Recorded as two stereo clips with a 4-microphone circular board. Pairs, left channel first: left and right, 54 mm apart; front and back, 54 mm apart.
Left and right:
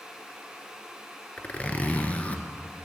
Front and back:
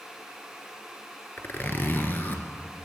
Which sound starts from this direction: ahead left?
A zipper, at 1.4 s.